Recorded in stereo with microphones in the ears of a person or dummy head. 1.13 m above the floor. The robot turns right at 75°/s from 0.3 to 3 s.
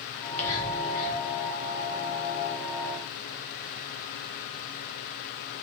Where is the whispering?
Centre (ahead or behind), 1.1 m; by 1.2 s 55° left (ahead or behind), 1.1 m.